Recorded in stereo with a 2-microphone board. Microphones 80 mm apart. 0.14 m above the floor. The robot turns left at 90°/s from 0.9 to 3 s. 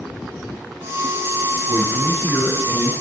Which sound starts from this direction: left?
A man speaking, at 1.7 s.